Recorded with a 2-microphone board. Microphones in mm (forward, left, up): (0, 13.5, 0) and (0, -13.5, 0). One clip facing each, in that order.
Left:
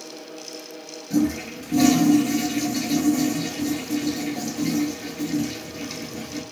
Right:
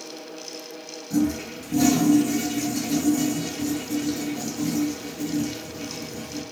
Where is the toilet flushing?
45° left (ahead or behind), 0.6 m.